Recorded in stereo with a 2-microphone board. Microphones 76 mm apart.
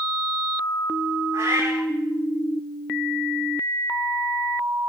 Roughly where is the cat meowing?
Right.